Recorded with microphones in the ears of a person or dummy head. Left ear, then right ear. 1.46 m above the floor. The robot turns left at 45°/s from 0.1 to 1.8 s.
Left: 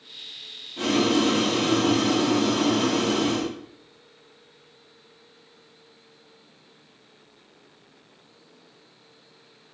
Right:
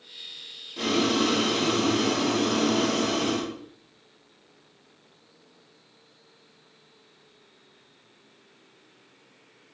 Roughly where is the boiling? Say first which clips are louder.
Left 2 dB; ahead right.